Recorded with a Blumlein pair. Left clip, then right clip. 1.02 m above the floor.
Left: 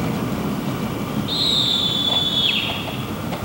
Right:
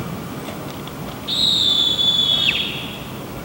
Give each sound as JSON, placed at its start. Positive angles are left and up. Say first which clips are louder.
{"t": 1.3, "sound": "a scream", "louder": "right 3 dB", "azimuth_deg": -40, "distance_m": 3.0}